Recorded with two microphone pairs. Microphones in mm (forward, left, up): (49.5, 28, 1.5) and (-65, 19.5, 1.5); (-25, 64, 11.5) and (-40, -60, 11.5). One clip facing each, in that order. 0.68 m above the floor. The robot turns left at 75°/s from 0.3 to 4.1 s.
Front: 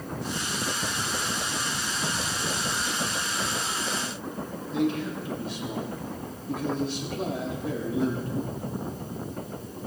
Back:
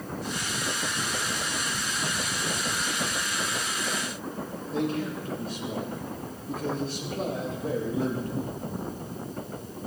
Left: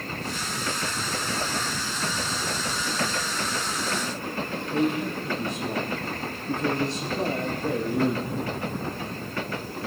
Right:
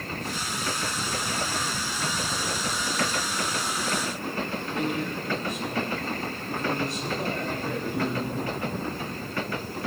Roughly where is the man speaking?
Behind left.